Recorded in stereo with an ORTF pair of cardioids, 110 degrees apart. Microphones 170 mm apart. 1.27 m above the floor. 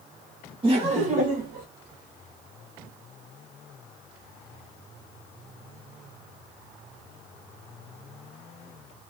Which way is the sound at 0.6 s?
35° right.